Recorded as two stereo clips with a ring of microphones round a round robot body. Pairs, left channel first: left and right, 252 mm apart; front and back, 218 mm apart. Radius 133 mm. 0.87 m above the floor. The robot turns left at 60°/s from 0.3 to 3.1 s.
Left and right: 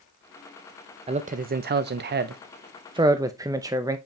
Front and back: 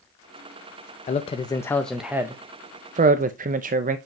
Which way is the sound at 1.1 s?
35° right.